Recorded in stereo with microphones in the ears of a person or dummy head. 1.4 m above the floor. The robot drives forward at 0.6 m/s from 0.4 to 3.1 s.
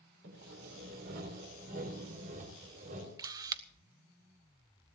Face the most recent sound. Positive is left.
turn(degrees=-25)  # may be behind; listen again after turning